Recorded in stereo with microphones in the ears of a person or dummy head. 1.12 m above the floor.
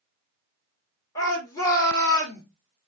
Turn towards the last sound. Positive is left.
turn(degrees=20)  # may be behind; listen again after turning